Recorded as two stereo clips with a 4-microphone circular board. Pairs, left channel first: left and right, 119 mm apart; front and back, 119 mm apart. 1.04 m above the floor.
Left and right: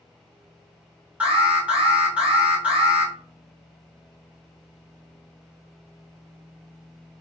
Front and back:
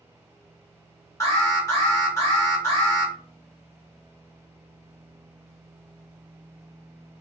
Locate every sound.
1.2 s an alarm: 25° right, 1.1 m